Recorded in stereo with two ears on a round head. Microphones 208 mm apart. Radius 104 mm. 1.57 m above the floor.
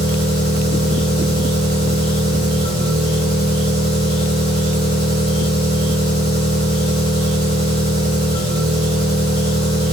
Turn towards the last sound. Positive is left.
turn(degrees=25)  # may be behind; listen again after turning